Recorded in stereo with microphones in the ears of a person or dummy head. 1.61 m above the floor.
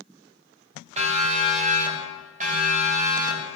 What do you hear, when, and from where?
1.0 s a siren: 40° right (ahead or behind), 5.5 m; by 3.5 s 50° right (ahead or behind), 8 m